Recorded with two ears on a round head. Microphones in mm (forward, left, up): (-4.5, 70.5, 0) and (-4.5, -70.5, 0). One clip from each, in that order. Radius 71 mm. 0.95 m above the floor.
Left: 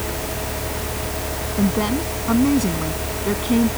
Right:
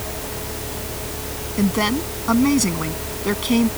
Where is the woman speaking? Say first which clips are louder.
Right 2 dB; 45° right (ahead or behind).